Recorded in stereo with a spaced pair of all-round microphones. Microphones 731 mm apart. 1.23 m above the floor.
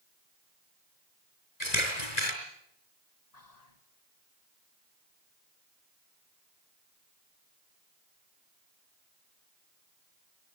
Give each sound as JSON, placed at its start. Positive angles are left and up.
{"t": 1.6, "sound": "a camera shutter", "side_deg": 65, "distance_m": 4.5}
{"t": 3.3, "sound": "whispering", "side_deg": 60, "distance_m": 1.7}